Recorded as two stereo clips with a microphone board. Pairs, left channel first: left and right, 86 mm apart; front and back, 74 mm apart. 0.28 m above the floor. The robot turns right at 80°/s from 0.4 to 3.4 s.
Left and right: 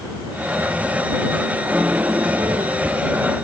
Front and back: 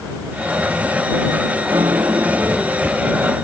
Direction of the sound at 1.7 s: Straight behind.